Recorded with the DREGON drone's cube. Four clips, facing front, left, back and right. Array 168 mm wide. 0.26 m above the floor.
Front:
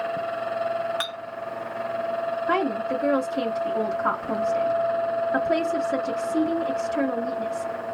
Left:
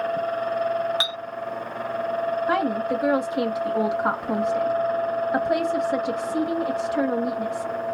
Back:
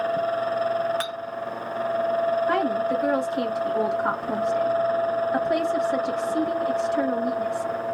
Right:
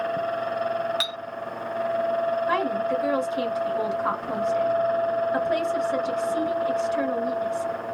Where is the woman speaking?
85° left, 1.3 m.